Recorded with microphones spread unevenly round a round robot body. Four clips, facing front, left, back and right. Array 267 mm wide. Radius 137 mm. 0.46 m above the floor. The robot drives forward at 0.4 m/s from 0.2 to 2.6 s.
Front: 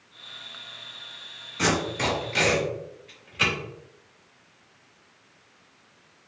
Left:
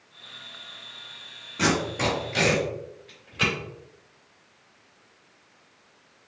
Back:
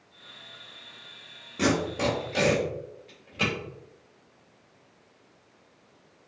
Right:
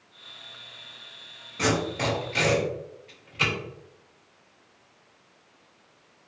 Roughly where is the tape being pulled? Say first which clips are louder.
Left 1 dB, even; behind.